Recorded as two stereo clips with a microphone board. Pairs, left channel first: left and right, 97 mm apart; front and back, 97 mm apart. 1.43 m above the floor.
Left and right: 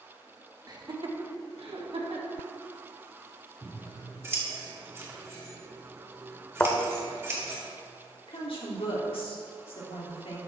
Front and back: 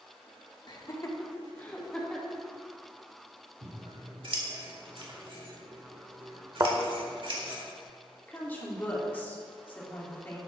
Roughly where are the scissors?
Behind right.